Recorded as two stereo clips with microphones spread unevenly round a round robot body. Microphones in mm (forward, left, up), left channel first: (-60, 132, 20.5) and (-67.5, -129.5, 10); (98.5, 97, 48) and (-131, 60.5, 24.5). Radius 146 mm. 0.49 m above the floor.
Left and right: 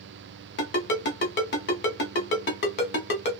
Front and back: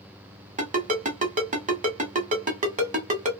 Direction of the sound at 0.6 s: 135° left.